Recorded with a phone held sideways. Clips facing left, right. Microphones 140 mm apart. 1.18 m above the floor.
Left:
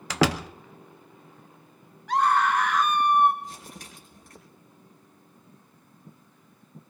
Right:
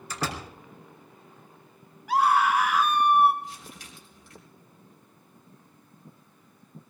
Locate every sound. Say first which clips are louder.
0.1 s a door slam: left 9 dB; 90° left, 0.7 m
2.1 s a scream: even; 10° right (ahead or behind), 1.9 m
3.4 s crumpling: left 1 dB; 45° left (ahead or behind), 5 m